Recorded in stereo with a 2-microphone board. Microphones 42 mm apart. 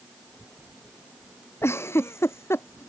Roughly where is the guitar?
I don't hear a guitar.